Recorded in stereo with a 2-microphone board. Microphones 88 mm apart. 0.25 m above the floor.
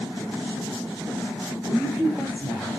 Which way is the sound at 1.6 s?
10° right (ahead or behind).